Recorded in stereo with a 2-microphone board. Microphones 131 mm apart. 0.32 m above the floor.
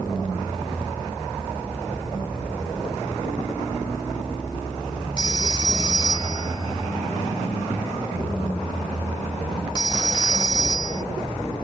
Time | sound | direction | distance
5.2 | a phone ringing | 35° left (ahead or behind) | ?